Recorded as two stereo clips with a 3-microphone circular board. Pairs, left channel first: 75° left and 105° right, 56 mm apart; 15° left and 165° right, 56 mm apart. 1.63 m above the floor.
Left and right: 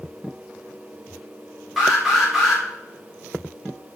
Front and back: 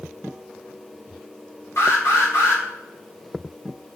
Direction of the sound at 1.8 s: 15° right.